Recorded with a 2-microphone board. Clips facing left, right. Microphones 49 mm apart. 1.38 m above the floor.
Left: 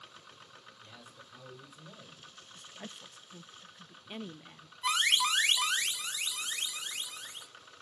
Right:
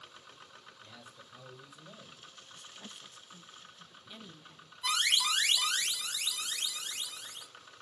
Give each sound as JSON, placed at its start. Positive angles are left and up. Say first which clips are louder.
{"t": 0.8, "sound": "a man speaking", "louder": "even", "side_deg": 20, "distance_m": 6.5}
{"t": 2.5, "sound": "a woman speaking", "louder": "left 4 dB", "side_deg": 35, "distance_m": 0.5}
{"t": 4.8, "sound": "an alarm", "louder": "left 2 dB", "side_deg": 30, "distance_m": 2.5}